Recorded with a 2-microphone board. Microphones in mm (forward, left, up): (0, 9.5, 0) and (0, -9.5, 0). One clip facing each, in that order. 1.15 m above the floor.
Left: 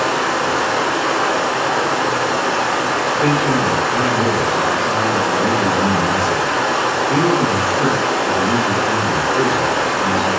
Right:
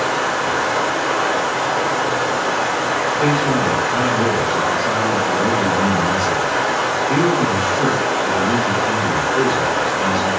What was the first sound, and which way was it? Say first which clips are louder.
Running water: left 1 dB; 80° left.